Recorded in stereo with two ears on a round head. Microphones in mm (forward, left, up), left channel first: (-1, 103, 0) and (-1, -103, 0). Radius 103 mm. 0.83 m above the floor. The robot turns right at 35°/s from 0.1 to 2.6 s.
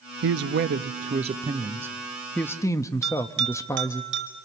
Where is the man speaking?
70° right, 0.8 m; by 4.0 s 15° left, 0.8 m.